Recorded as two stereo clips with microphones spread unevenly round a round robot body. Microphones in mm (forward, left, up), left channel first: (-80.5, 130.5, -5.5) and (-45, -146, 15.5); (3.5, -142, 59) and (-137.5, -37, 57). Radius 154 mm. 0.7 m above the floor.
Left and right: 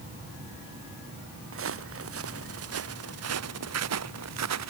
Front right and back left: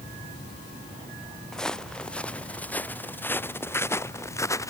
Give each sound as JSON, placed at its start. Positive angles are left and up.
{"t": 1.5, "sound": "footsteps", "azimuth_deg": -125}